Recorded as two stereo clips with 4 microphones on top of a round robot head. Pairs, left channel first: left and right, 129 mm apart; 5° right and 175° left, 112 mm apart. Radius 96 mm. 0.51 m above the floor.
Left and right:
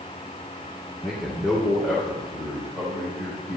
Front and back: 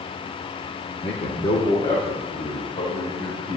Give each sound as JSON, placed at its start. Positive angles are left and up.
{"t": 1.0, "sound": "a man speaking", "azimuth_deg": 0, "distance_m": 1.1}